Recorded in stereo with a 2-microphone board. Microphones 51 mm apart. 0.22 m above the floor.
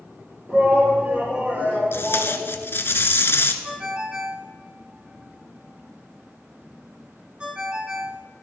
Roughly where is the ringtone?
Right.